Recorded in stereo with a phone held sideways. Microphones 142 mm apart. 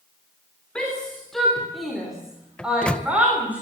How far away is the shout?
About 4 m.